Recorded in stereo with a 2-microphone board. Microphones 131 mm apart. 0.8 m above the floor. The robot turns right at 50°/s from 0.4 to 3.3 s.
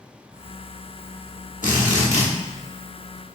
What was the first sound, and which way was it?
A drill, 90° left.